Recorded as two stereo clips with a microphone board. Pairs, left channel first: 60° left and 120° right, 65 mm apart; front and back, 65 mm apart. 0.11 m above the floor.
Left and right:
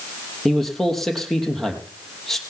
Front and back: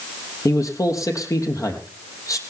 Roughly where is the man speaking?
Ahead right.